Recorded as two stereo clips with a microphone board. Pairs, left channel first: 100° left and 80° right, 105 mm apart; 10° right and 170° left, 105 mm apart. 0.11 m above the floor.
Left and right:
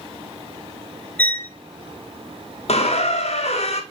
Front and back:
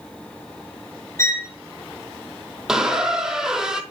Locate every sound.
1.2 s a violin: 35° left, 0.7 m
2.7 s a squeak: 85° left, 0.7 m